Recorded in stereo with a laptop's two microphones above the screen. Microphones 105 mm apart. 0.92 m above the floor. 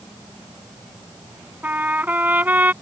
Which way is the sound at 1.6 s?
15° right (ahead or behind).